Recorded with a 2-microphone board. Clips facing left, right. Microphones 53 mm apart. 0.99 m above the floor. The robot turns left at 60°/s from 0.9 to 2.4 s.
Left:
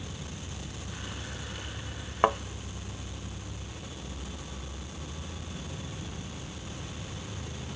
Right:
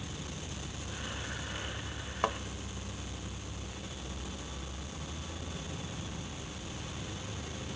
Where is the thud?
30° left (ahead or behind); by 2.4 s 35° left (ahead or behind).